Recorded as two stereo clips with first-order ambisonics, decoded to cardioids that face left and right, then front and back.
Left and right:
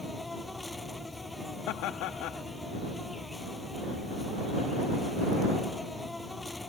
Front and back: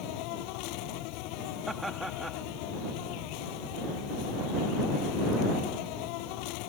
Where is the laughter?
95° left.